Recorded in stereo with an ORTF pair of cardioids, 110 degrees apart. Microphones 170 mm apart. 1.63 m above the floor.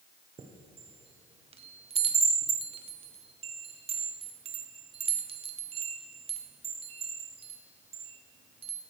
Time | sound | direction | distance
0.4 | a chime | 35° right | 1.0 m